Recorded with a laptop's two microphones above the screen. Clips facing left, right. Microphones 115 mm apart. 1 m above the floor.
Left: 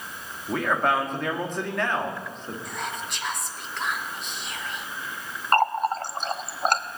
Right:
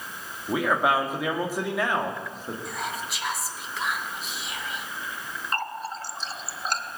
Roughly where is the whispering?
Centre.